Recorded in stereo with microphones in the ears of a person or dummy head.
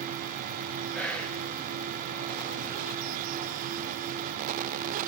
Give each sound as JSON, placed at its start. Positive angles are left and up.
{"t": 0.9, "sound": "whispering", "side_deg": 5, "distance_m": 0.8}